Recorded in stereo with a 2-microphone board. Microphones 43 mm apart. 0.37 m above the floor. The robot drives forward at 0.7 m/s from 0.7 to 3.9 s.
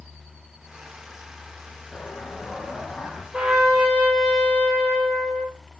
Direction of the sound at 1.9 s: 35° left (ahead or behind).